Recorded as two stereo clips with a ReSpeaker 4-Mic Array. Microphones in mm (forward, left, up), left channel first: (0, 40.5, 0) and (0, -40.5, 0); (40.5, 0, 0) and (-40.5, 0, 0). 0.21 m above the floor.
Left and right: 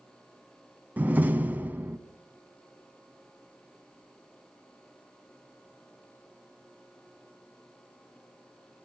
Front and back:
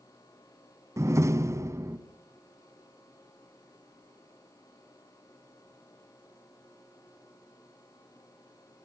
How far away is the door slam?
About 1.5 m.